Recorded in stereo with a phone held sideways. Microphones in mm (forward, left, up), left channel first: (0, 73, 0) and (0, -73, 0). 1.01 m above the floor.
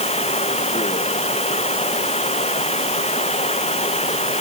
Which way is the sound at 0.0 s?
45° left (ahead or behind).